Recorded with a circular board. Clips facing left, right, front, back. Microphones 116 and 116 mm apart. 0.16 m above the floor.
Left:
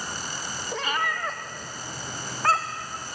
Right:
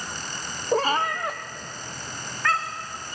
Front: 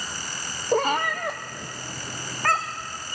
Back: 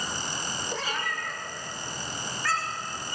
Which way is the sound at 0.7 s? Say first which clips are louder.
Right 7 dB, front 13 dB; 45° right.